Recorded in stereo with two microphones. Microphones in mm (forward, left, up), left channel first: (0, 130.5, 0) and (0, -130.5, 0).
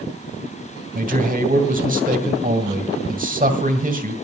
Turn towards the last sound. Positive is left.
turn(degrees=-30)  # may be behind; listen again after turning